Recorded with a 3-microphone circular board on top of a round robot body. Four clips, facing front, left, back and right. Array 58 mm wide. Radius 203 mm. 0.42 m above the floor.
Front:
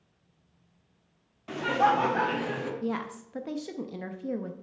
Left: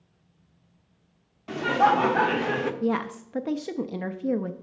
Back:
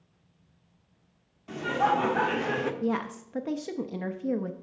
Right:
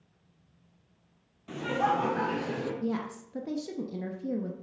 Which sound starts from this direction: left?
A woman speaking, at 2.8 s.